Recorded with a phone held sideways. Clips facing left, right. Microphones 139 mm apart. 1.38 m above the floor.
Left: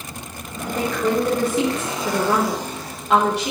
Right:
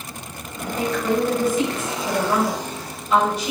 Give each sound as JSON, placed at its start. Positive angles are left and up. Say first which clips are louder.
{"t": 0.7, "sound": "a woman speaking", "louder": "left 1 dB", "side_deg": 75, "distance_m": 4.0}